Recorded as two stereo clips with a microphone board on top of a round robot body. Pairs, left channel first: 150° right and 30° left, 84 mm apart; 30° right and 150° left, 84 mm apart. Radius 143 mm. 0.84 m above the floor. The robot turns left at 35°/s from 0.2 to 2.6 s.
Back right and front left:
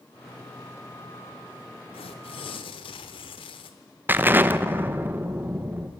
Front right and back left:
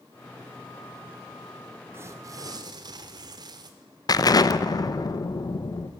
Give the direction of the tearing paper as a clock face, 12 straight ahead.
5 o'clock.